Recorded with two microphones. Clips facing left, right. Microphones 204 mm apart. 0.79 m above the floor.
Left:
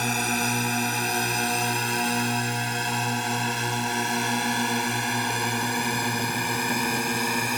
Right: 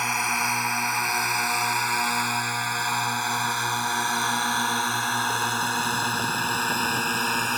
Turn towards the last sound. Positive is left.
turn(degrees=10)  # may be behind; listen again after turning